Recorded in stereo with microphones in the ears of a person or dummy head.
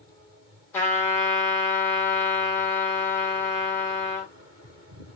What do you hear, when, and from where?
0.7 s a trumpet: 15° left (ahead or behind), 1.1 m